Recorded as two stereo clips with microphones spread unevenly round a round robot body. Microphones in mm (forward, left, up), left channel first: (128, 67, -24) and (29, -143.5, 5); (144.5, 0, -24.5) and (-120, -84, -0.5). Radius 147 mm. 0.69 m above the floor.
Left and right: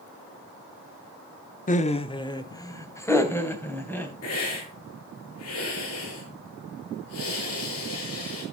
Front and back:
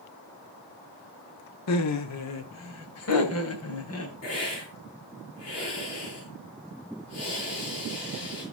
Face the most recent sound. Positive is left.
turn(degrees=60)